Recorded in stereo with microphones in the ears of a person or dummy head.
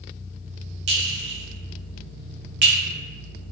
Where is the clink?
50° right (ahead or behind), 0.7 m.